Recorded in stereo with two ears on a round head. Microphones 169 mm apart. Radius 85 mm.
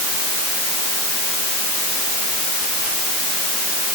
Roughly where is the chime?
I don't hear a chime.